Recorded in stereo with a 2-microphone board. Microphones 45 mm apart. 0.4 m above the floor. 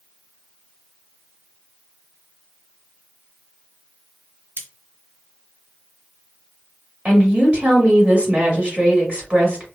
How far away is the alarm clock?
No alarm clock in this recording.